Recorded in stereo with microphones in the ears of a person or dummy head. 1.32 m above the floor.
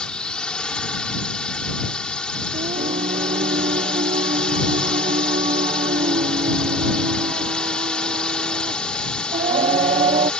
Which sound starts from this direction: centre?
A drone, at 0.0 s.